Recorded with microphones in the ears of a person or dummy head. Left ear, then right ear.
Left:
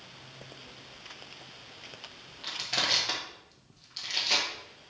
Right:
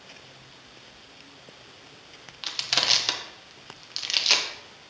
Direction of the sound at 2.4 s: 55° right (ahead or behind).